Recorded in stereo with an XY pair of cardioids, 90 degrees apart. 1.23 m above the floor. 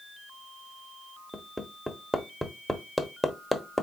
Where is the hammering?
5° left, 0.8 m.